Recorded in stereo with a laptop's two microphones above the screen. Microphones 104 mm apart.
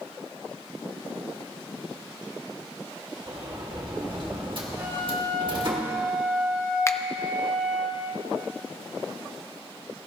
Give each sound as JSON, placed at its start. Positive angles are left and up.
{"t": 3.3, "sound": "a sliding door", "side_deg": -50, "distance_m": 1.7}
{"t": 4.8, "sound": "a flute", "side_deg": -20, "distance_m": 6.0}
{"t": 6.9, "sound": "a finger snap", "side_deg": 25, "distance_m": 0.6}